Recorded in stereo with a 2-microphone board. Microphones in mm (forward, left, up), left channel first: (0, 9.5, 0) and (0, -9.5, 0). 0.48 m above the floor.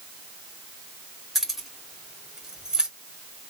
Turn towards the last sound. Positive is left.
turn(degrees=-45)  # may be behind; listen again after turning